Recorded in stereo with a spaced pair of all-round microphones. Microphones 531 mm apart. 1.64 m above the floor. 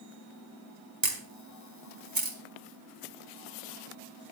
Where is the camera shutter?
40° right (ahead or behind), 1.7 m.